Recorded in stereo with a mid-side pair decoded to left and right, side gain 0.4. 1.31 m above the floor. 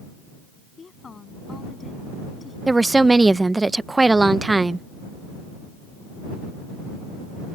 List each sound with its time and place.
0.8 s a woman speaking: 40° left; by 2.6 s 35° left
2.7 s a woman speaking: 20° right